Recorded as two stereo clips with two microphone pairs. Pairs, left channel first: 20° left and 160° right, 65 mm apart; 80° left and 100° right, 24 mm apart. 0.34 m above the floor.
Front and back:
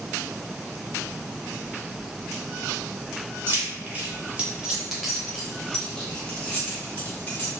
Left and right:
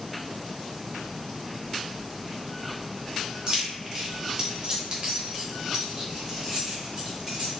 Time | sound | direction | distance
3.5 | keys jangling | 145° right | 1.0 m